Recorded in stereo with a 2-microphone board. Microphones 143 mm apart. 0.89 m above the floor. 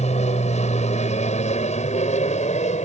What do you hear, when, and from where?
0.0 s an aircraft: 50° left (ahead or behind); by 2.9 s 55° left (ahead or behind)